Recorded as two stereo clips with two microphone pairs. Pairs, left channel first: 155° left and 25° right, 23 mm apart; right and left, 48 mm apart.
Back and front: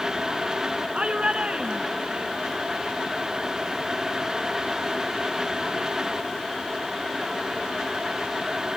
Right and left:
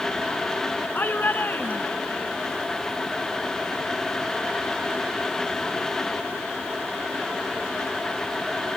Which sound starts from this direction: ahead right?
A shout, at 0.9 s.